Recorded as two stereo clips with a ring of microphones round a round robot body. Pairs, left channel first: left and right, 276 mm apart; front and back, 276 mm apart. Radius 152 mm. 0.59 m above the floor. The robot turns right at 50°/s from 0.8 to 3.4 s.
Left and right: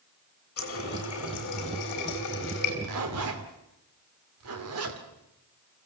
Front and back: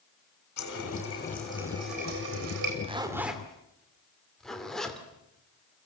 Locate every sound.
0.6 s a running tap: 55° left, 4 m; by 2.7 s 155° left, 4 m
2.8 s a zipper: 115° right, 2.5 m; by 5.0 s 90° right, 2.5 m